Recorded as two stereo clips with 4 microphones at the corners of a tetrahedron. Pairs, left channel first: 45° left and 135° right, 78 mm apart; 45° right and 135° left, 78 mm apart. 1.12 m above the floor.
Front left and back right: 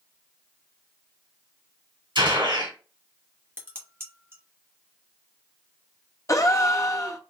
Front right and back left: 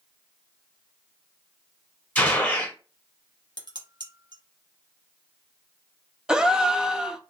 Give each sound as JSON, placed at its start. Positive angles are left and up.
{"t": 2.1, "sound": "a gunshot", "azimuth_deg": -125, "distance_m": 1.9}
{"t": 3.6, "sound": "dishes clattering", "azimuth_deg": 165, "distance_m": 1.0}
{"t": 6.3, "sound": "a gasp", "azimuth_deg": 55, "distance_m": 0.5}